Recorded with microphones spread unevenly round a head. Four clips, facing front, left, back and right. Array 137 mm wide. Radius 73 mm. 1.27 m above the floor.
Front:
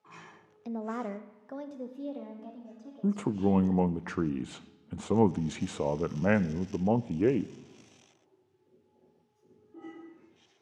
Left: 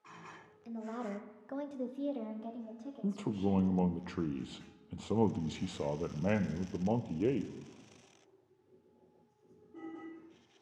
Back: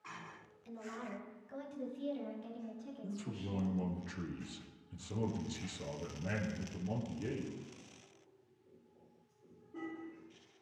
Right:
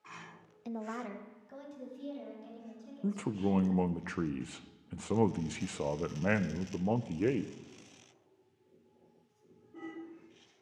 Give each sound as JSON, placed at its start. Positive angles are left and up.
{"t": 0.7, "sound": "a woman speaking", "azimuth_deg": -30, "distance_m": 1.0}
{"t": 3.0, "sound": "a man speaking", "azimuth_deg": -5, "distance_m": 0.5}